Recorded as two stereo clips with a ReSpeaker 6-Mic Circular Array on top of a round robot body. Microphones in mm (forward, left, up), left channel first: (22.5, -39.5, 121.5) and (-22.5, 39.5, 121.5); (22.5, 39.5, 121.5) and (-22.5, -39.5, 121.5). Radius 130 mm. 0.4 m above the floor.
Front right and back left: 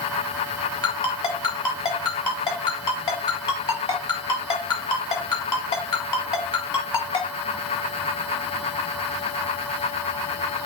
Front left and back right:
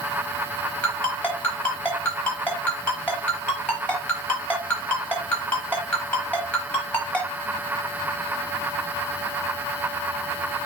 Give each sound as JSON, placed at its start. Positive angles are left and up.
{"t": 0.8, "sound": "a ringtone", "azimuth_deg": -15, "distance_m": 5.5}